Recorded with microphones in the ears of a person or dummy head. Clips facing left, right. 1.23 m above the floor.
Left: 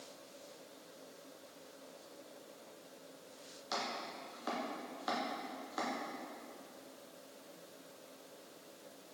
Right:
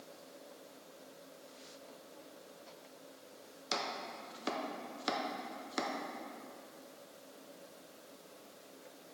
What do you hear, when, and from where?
3.7 s chopping: 30° right (ahead or behind), 0.6 m